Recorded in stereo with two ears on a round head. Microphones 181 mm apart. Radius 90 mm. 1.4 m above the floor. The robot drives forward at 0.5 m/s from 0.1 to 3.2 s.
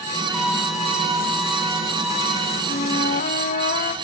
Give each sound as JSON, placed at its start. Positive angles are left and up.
{"t": 0.3, "sound": "a violin", "side_deg": 0, "distance_m": 1.4}
{"t": 2.7, "sound": "a flute", "side_deg": 35, "distance_m": 1.7}